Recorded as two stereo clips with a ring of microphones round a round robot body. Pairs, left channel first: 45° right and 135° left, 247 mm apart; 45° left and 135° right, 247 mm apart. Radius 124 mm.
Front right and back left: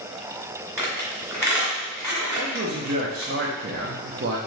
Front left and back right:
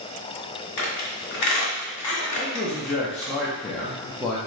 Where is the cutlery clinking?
No cutlery clinking in this recording.